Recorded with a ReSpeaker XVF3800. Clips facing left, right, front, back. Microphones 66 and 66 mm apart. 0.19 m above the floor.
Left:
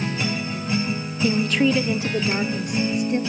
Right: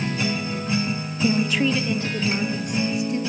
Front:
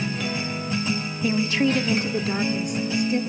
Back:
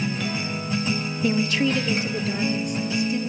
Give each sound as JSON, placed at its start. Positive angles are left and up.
{"t": 1.2, "sound": "a woman speaking", "azimuth_deg": -80, "distance_m": 1.0}